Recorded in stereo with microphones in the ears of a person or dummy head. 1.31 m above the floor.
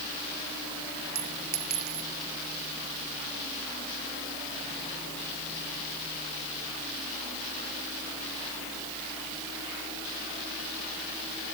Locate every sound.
1.1 s a clink: 40° right (ahead or behind)